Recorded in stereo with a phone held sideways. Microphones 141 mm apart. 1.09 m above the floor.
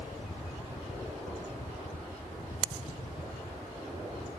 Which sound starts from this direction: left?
A fan, at 0.0 s.